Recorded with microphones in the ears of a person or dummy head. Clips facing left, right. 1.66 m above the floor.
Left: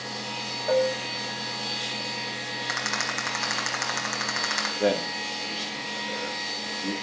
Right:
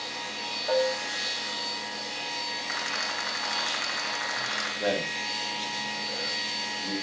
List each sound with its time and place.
0.7 s dishes clattering: 30° left (ahead or behind), 1.3 m
2.7 s a rattle: 50° left (ahead or behind), 4.5 m
4.8 s a man speaking: 30° left (ahead or behind), 4.5 m